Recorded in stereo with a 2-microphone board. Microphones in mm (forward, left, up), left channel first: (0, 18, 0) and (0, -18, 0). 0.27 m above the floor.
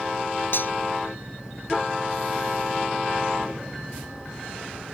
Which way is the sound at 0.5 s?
65° left (ahead or behind).